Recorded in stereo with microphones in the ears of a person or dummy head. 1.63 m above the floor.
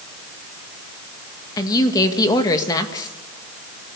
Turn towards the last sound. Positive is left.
turn(degrees=25)  # may be behind; listen again after turning